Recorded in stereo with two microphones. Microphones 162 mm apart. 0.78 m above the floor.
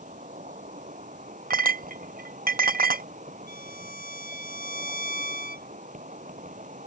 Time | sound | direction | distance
0.0 | an insect | 50° right (ahead or behind) | ?
1.5 | a clink | 60° right (ahead or behind) | ?
3.5 | a violin | 60° left (ahead or behind) | ?